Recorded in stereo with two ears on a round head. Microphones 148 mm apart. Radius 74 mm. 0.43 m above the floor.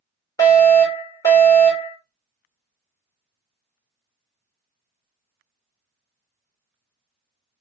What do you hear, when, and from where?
0.4 s a fire alarm: 20° left (ahead or behind), 2.0 m